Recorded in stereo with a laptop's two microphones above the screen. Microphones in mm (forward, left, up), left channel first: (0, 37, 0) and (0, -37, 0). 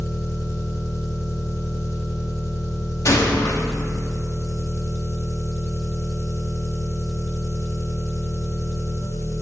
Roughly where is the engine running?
Left.